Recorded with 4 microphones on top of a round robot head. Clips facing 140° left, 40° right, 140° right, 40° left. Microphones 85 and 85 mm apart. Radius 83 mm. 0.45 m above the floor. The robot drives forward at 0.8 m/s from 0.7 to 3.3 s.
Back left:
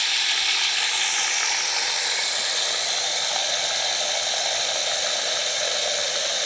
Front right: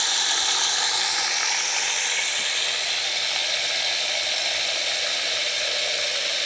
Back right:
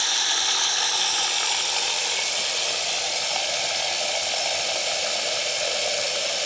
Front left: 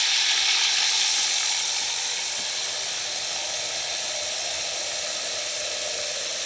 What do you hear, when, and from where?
0.0 s running water: 95° right, 1.1 m; by 6.5 s 155° right, 2.5 m